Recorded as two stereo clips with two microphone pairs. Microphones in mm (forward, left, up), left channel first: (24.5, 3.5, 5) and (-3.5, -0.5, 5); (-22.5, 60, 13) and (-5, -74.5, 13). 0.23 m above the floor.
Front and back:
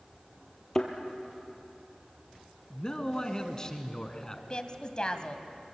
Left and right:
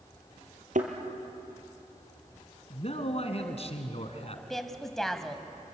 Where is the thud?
70° right, 2.5 m.